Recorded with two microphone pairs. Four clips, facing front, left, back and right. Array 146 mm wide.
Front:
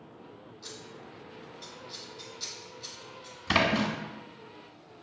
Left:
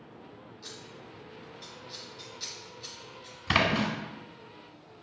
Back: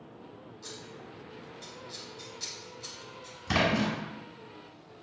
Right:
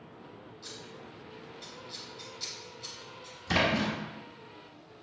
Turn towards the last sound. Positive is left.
turn(degrees=55)